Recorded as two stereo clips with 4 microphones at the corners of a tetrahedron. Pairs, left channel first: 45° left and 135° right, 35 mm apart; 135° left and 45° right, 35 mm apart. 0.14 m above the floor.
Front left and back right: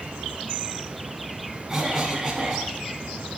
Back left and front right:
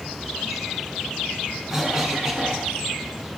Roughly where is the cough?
Right.